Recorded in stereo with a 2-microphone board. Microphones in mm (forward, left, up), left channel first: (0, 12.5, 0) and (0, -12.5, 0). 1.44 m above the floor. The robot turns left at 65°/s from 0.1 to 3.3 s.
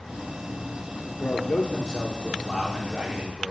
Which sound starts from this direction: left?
A man speaking, at 1.2 s.